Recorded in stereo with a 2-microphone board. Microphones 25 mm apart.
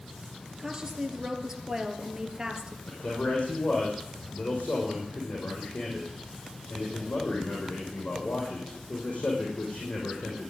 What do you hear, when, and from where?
0.6 s a woman speaking: 25° right (ahead or behind), 2.5 m
2.9 s a man speaking: 75° left (ahead or behind), 5 m